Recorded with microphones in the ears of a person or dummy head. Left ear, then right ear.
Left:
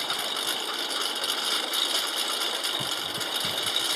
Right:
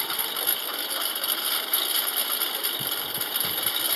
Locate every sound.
0.0 s a lawn mower: 10° right (ahead or behind)